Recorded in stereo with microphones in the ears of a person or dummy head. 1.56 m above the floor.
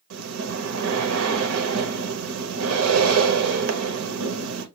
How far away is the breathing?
About 0.7 m.